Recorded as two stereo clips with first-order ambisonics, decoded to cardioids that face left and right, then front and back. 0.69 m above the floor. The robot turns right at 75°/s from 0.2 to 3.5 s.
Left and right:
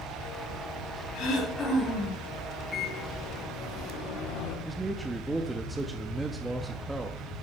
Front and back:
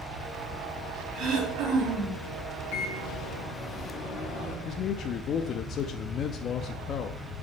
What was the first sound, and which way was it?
Throat clearing, 120° left.